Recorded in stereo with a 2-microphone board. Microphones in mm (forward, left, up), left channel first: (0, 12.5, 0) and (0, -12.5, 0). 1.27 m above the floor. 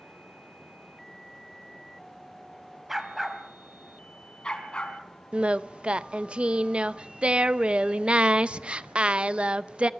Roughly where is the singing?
Right.